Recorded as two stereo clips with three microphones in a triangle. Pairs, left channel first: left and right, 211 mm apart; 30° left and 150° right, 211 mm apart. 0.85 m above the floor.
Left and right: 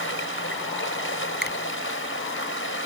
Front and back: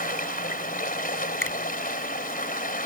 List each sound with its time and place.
0.0 s running water: 75° left
1.4 s a finger snap: 50° left